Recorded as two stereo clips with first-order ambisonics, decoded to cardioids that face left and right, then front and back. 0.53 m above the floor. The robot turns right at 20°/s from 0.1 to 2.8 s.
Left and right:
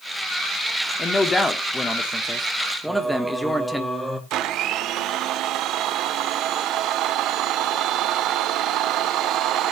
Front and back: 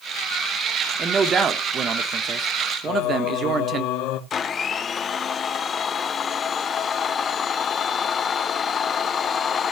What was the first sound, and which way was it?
A man speaking, 145° left.